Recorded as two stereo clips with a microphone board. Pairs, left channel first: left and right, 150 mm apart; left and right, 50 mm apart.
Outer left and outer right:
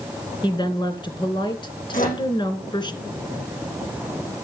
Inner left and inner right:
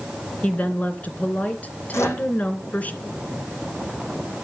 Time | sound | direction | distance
0.4 | a woman speaking | 30° left (ahead or behind) | 2.5 m
1.9 | a microwave | 65° left (ahead or behind) | 7.5 m